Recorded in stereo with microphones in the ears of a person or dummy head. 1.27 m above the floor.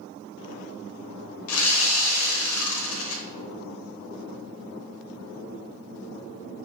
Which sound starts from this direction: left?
Sawing, at 1.5 s.